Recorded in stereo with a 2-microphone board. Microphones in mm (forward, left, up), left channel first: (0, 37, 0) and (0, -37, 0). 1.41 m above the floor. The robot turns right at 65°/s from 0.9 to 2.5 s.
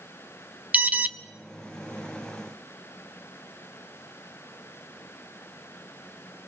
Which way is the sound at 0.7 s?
20° right (ahead or behind).